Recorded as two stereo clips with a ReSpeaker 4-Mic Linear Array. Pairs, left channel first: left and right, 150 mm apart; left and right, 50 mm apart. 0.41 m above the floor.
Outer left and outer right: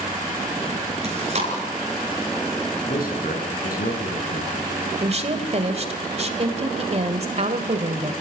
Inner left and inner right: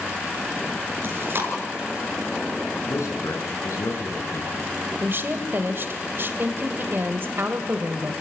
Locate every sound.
1.0 s chewing: 50° right (ahead or behind), 4 m
2.9 s a man speaking: 75° left (ahead or behind), 5 m
5.0 s a woman speaking: 45° right (ahead or behind), 1.8 m